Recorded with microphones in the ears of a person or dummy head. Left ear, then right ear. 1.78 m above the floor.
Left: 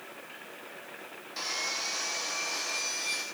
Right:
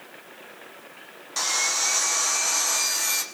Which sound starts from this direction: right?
Sawing, at 1.4 s.